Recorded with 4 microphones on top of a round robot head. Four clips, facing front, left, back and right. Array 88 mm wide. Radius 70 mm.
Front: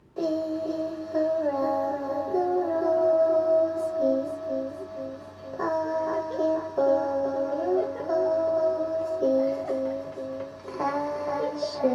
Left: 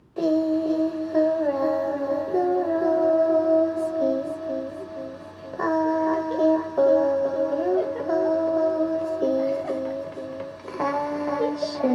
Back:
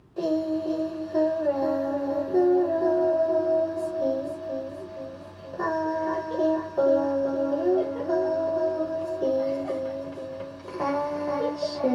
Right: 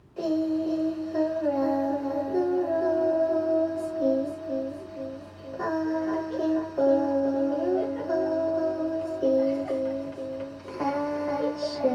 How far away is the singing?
About 0.7 m.